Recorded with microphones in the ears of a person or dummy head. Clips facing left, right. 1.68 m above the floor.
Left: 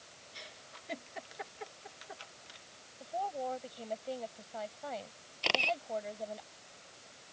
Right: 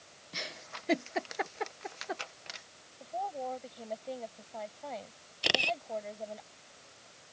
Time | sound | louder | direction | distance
0.3 | a giggle | right 10 dB | 65° right (ahead or behind) | ?
3.0 | a woman speaking | even | centre (ahead or behind) | ?
5.4 | a camera shutter | right 1 dB | 15° right (ahead or behind) | ?